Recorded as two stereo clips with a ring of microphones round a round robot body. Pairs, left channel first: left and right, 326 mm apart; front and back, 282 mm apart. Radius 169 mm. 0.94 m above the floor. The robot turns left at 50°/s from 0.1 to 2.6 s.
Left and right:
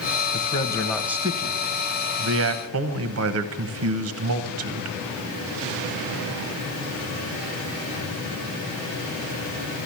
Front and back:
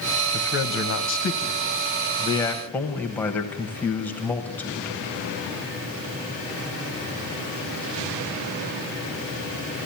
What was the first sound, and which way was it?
A man speaking, 30° left.